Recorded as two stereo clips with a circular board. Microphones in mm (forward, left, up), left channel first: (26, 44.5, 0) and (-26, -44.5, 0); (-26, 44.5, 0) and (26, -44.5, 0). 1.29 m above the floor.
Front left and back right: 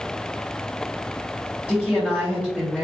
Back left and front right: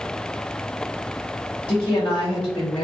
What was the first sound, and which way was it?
A woman speaking, 150° left.